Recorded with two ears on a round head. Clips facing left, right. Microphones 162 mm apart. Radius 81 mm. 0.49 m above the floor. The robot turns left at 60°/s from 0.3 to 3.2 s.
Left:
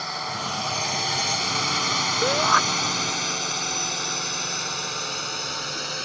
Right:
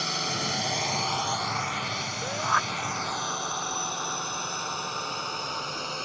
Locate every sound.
0.0 s a drone: 40° right (ahead or behind); by 6.1 s 15° left (ahead or behind)
2.2 s a shout: 70° left (ahead or behind); by 2.6 s 45° left (ahead or behind)